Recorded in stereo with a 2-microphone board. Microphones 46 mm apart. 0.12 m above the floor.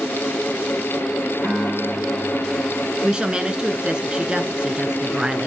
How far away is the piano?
About 7.5 m.